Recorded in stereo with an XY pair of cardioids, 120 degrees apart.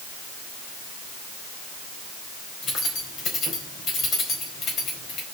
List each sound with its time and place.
2.6 s keys jangling: 50° left, 4 m